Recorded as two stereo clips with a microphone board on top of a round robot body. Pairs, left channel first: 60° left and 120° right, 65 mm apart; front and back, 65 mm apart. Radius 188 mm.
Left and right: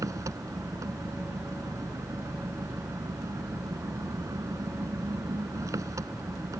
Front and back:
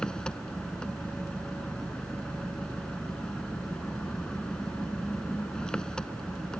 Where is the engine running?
80° right.